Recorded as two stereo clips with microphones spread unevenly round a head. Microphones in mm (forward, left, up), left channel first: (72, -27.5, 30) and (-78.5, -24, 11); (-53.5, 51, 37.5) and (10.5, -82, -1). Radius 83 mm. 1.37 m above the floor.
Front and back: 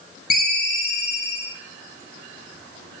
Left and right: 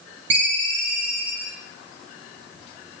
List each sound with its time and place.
0.3 s a ringtone: 10° right, 1.3 m